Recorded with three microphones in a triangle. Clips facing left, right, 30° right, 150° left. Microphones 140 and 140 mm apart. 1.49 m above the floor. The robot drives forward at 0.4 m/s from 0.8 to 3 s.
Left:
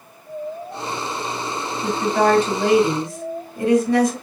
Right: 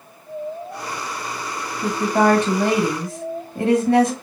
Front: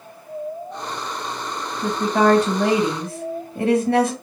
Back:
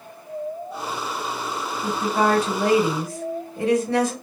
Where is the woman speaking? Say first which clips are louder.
Right 1 dB, front 4 dB; 50° right, 1.9 m; by 4.1 s 60° right, 1.6 m.